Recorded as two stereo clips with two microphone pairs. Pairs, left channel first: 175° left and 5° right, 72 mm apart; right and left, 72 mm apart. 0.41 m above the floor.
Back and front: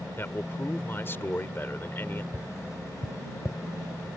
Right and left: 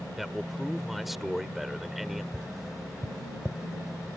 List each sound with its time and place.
0.2 s a man speaking: 175° left
2.3 s tapping: 175° left